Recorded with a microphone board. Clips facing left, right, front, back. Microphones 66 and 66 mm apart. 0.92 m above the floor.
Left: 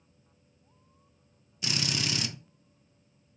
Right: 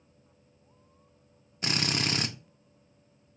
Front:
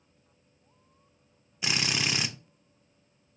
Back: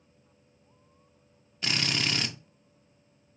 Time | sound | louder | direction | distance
1.6 | a drill | right 3 dB, even | 75° right | 0.5 m